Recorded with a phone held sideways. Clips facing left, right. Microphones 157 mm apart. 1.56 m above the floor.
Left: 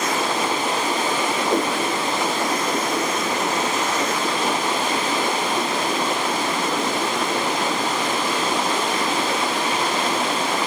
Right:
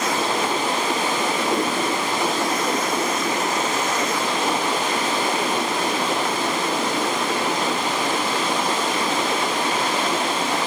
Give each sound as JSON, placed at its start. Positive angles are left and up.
{"t": 1.5, "sound": "a whoosh", "side_deg": 60, "distance_m": 3.0}